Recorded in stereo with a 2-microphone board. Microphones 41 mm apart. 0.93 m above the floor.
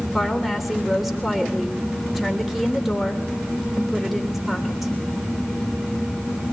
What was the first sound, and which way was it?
A woman speaking, centre (ahead or behind).